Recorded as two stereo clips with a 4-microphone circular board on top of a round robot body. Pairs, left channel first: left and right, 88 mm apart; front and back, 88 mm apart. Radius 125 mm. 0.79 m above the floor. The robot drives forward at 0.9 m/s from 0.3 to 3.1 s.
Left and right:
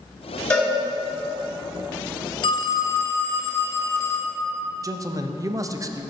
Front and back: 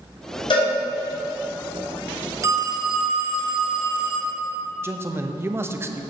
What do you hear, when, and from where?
0.5 s a cowbell: 15° left, 3 m
2.4 s a phone ringing: 120° left, 0.5 m; by 4.4 s 155° left, 1.0 m
4.8 s a man speaking: 125° right, 0.7 m